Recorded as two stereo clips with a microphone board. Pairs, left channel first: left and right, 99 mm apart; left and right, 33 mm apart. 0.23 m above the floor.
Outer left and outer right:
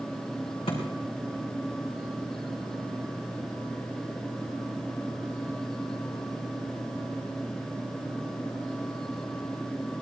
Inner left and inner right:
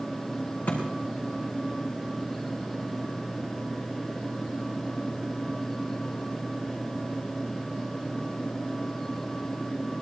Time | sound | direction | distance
0.7 | a thud | 75° left (ahead or behind) | 5 m